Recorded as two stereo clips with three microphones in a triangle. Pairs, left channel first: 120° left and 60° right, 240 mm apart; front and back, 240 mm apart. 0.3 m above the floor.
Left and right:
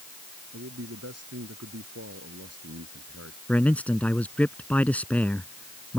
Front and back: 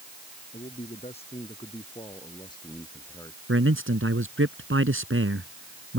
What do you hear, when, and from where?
0.5 s a man speaking: 60° right; by 3.4 s 75° right
3.5 s a man speaking: 155° right